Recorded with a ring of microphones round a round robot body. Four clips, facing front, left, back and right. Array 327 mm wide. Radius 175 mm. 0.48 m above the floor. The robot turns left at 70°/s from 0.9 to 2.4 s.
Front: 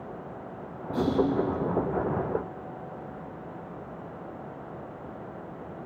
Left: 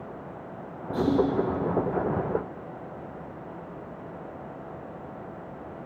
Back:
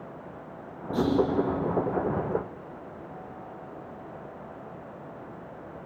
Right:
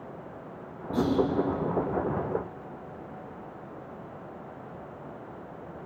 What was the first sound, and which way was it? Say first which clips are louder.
Whispering: left 2 dB, back 1 dB; 135° right.